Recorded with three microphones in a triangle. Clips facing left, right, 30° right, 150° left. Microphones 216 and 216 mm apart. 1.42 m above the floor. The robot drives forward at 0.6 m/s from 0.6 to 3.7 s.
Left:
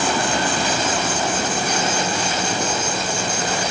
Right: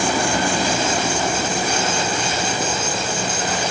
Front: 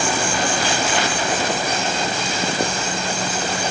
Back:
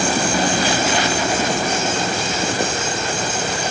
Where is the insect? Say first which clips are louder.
Right 1 dB, back 3 dB; 165° right, 1.3 m; by 3.7 s 175° right, 3 m.